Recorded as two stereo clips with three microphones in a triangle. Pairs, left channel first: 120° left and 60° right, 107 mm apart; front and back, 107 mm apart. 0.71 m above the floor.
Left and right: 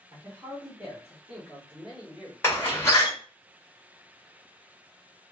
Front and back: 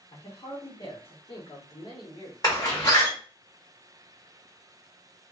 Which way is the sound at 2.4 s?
50° left.